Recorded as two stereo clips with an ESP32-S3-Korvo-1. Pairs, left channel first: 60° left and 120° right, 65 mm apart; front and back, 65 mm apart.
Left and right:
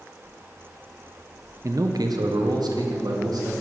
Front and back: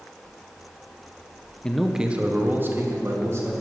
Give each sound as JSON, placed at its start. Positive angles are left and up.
{"t": 1.6, "sound": "a man speaking", "azimuth_deg": -80, "distance_m": 0.8}